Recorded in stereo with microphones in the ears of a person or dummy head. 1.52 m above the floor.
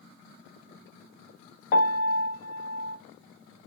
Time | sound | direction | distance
1.7 | a piano | 50° left (ahead or behind) | 0.6 m